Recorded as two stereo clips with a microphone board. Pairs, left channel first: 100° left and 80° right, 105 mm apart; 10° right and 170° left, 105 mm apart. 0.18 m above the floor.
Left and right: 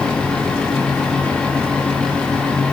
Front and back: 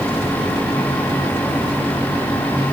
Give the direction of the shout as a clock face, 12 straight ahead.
I don't hear a shout.